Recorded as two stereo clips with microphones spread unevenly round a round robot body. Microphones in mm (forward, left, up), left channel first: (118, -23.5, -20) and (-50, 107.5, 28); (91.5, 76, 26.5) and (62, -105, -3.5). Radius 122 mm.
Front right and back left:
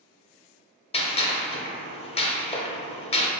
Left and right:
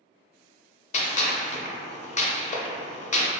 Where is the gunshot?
25° left, 0.5 m.